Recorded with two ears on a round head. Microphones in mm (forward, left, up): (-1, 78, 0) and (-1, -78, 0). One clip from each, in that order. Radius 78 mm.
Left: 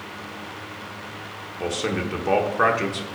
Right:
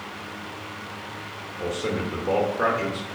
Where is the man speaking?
55° left (ahead or behind), 1.1 m.